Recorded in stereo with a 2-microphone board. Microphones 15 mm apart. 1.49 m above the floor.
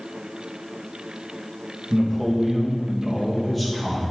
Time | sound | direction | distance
1.9 | a man speaking | 5° left (ahead or behind) | 2.5 m